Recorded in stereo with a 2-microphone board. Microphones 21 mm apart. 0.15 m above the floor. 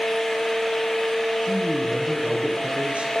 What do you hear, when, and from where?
1.4 s a man speaking: 70° right (ahead or behind), 4.5 m